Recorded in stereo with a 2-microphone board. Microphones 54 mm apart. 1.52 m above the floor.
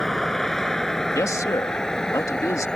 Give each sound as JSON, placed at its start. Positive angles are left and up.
{"t": 0.0, "sound": "a vehicle", "side_deg": 5}
{"t": 1.1, "sound": "a man speaking", "side_deg": 80}